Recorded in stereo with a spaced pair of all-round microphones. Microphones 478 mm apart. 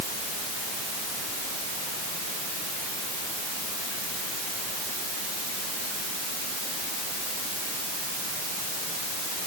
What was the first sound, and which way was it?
Only background noise.